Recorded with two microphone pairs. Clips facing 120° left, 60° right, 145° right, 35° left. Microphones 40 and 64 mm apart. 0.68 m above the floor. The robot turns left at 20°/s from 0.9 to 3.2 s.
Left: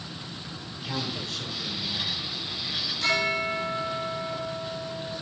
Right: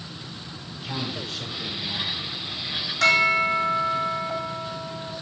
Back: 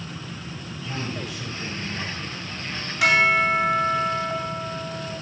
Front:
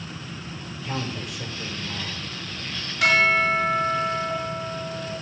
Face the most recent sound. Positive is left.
turn(degrees=-65)